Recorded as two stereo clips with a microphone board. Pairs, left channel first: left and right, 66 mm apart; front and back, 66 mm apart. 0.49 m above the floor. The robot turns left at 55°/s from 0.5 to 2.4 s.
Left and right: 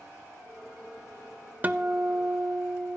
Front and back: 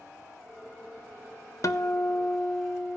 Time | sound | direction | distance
1.6 | a guitar | 25° right | 0.7 m